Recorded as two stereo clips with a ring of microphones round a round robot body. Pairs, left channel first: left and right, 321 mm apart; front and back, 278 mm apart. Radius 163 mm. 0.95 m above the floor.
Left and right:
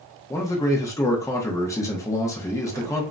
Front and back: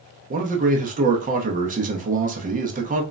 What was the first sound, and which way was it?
A man speaking, 160° left.